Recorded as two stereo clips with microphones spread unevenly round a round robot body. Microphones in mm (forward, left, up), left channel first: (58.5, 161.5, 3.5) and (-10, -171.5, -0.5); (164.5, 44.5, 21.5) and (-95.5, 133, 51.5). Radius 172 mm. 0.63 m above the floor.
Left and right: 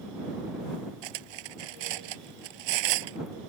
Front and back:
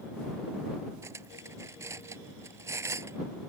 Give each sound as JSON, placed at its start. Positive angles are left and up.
{"t": 1.0, "sound": "cutlery clinking", "azimuth_deg": -115}